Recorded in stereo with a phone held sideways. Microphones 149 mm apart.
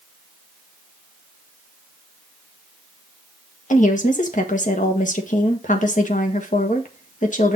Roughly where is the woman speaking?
Left.